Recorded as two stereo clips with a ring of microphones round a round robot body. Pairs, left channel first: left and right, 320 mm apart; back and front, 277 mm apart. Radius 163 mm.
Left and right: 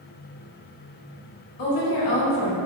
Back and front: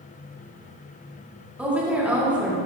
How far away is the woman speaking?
About 1.9 m.